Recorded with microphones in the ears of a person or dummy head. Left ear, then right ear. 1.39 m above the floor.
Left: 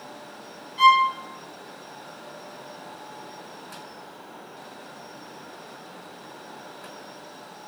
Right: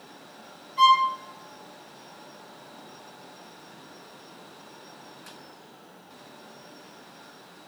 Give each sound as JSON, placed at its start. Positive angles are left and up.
{"t": 0.8, "sound": "a violin", "side_deg": -30, "distance_m": 1.4}